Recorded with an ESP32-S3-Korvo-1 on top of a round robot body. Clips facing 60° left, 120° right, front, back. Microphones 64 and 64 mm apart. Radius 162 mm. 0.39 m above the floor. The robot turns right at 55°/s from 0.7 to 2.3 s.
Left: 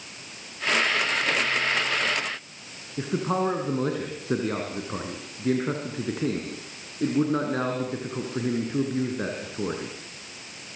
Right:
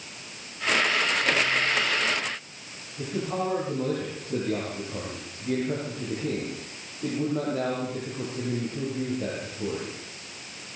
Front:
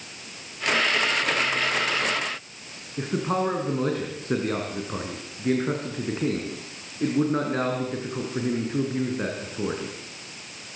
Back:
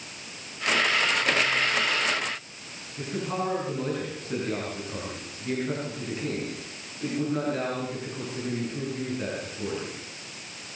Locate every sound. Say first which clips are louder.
3.0 s a man speaking: left 4 dB, front 5 dB; 50° left, 5.5 m